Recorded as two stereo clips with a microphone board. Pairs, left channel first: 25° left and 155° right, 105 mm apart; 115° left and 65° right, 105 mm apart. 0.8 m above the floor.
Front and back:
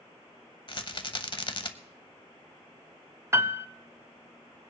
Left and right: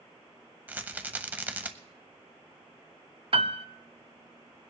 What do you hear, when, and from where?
0.7 s a rattle: straight ahead, 0.8 m
3.3 s a piano: 95° right, 0.5 m